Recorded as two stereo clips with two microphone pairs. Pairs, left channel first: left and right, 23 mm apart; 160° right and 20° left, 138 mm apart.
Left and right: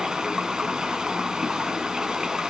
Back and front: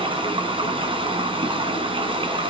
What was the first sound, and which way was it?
Running water, 30° right.